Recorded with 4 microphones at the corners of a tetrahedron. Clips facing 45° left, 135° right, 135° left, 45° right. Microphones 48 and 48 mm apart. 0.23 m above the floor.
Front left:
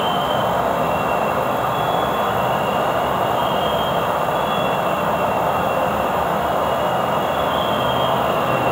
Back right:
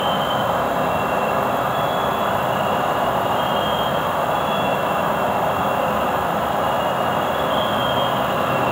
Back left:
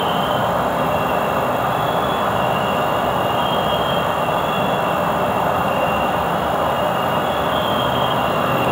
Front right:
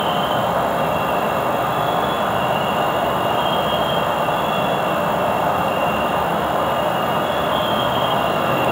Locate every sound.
0.0 s an insect: 45° left, 1.1 m